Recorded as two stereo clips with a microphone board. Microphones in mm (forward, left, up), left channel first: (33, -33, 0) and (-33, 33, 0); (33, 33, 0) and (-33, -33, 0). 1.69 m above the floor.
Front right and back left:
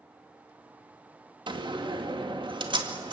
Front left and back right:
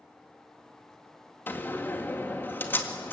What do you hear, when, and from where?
1.5 s a door slam: 115° left, 2.0 m